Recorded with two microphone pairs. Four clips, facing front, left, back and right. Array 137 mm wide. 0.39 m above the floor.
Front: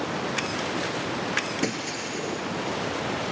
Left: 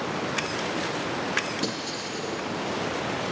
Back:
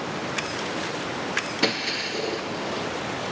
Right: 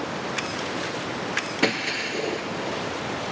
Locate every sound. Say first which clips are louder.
1.6 s breaking glass: right 5 dB, back 2 dB; 120° right, 2.5 m